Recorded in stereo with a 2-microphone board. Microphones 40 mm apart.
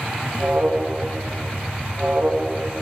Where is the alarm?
35° right (ahead or behind), 1.1 m.